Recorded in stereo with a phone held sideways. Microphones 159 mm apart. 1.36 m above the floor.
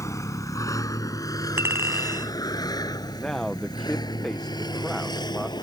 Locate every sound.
0.0 s a vehicle: 20° left (ahead or behind); by 5.6 s 30° left (ahead or behind)
1.6 s a clink: 15° right (ahead or behind)
3.2 s a man speaking: 5° left (ahead or behind)